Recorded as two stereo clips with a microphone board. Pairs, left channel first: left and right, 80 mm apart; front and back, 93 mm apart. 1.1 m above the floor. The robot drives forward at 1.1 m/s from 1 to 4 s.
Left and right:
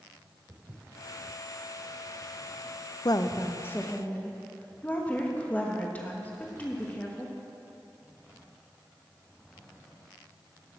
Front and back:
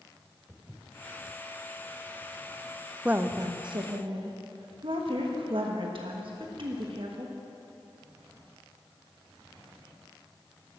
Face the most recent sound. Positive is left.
turn(degrees=160)